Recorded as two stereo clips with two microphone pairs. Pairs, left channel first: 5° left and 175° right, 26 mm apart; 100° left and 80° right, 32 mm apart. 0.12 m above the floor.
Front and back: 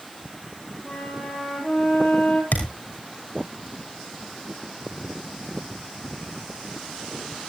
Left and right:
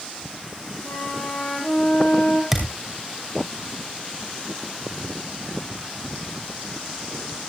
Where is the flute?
75° left, 9.5 m.